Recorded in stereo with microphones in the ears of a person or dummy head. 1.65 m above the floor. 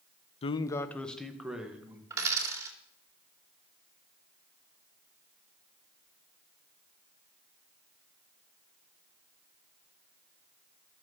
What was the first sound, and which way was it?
A man speaking, 35° left (ahead or behind).